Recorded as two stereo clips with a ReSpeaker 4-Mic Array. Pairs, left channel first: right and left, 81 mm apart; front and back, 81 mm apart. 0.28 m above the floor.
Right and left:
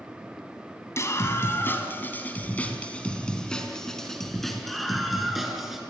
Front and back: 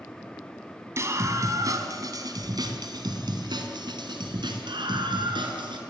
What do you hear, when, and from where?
1.0 s a scream: 135° right, 2.5 m; by 5.8 s 175° left, 5 m